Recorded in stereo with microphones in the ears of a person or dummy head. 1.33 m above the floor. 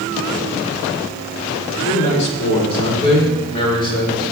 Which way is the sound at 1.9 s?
45° left (ahead or behind).